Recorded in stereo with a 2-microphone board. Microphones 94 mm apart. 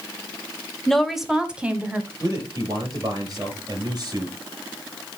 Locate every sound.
0.9 s a woman speaking: 5° left (ahead or behind), 1.2 m; by 2.1 s 20° right (ahead or behind), 2.0 m
2.2 s a man speaking: 50° right (ahead or behind), 6 m